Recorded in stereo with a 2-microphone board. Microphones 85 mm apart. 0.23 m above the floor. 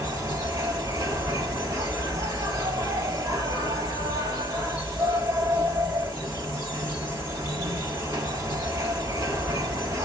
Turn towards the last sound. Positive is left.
turn(degrees=-40)  # may be behind; listen again after turning